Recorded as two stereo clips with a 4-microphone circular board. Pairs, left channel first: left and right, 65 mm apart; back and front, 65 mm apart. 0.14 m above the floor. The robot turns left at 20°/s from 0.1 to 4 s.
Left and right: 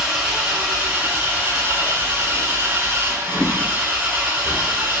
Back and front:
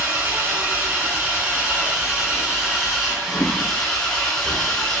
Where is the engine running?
30° right, 0.9 m; by 5.0 s 110° right, 0.9 m.